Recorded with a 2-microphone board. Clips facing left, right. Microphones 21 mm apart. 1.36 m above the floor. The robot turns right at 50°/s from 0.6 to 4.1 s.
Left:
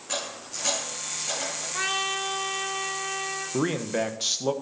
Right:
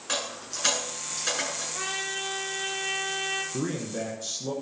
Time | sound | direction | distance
0.1 | a dropped coin | 40° right (ahead or behind) | 6.5 m
1.7 | a trumpet | 145° left | 2 m
3.5 | a man speaking | 55° left (ahead or behind) | 1.2 m